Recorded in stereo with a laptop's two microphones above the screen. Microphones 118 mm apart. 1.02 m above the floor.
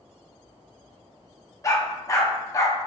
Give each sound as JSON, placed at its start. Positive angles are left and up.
{"t": 1.6, "sound": "a dog barking", "side_deg": 25, "distance_m": 0.6}